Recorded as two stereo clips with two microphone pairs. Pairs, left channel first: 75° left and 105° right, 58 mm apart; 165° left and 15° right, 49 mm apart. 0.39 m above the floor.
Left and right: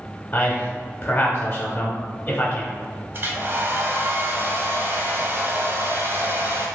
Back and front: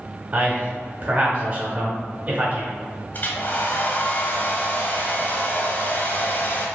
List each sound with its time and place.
0.3 s a man speaking: 30° left, 1.0 m
3.1 s a hair dryer: 150° right, 0.6 m